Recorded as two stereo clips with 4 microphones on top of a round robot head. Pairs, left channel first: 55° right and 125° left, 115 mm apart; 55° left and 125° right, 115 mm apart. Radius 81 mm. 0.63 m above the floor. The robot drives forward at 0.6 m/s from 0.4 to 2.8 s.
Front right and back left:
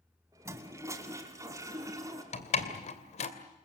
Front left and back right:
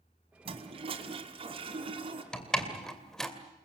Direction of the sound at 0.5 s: 165° right.